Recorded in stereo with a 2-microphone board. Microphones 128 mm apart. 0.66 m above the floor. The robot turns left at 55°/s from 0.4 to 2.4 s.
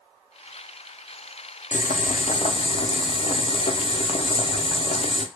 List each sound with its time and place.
1.7 s boiling: 90° left, 0.5 m; by 5.2 s 50° left, 0.5 m